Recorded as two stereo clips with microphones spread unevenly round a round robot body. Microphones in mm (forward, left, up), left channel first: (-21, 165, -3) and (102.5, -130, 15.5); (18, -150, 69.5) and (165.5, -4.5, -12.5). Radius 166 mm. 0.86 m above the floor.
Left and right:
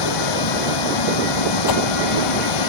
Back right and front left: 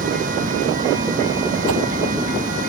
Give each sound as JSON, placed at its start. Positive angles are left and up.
{"t": 0.0, "sound": "running water", "azimuth_deg": 110}
{"t": 1.7, "sound": "a whoosh", "azimuth_deg": 85}